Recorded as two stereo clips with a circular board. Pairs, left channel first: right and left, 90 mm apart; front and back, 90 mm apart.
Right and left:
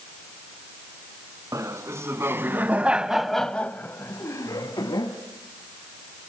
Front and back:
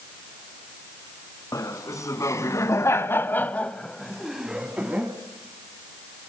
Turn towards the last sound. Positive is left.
turn(degrees=-110)